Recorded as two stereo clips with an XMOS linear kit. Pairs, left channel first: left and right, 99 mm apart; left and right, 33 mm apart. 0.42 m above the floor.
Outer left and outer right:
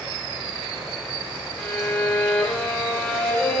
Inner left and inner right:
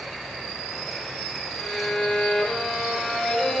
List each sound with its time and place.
1.6 s a violin: 10° left (ahead or behind), 0.6 m